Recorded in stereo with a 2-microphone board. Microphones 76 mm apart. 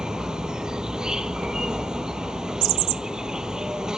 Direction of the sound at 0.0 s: 10° right (ahead or behind).